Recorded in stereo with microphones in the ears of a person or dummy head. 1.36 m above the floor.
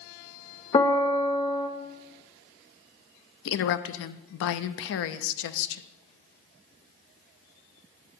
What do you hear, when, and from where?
0.7 s a piano: 20° left (ahead or behind), 0.6 m
3.5 s a woman speaking: 70° left (ahead or behind), 0.6 m